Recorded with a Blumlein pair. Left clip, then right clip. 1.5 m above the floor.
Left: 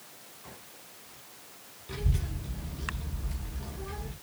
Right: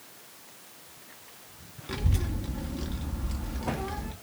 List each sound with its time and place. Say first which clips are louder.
1.9 s a child speaking: right 4 dB; 65° right, 0.9 m